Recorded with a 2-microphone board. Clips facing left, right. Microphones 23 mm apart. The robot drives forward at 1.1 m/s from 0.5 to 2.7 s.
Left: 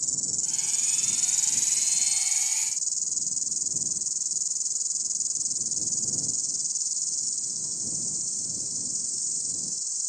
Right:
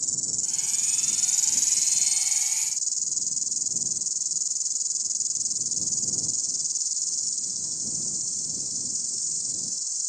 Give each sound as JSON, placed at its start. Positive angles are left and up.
{"t": 0.0, "sound": "an insect", "side_deg": -10}